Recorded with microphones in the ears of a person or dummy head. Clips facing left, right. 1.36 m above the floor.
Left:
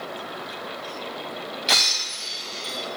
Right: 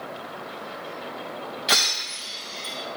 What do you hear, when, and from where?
1.7 s breaking glass: centre (ahead or behind), 2.5 m